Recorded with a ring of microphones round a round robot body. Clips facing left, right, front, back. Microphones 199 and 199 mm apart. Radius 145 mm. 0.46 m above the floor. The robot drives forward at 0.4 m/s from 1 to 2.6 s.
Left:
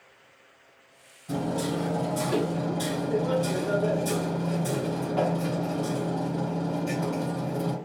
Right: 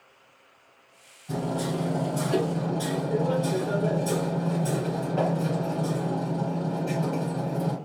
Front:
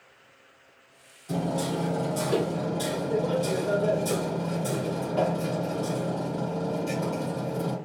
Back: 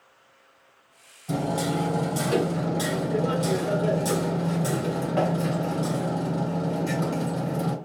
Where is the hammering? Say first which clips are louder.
Left 1 dB, back 2 dB; 160° left, 2 m.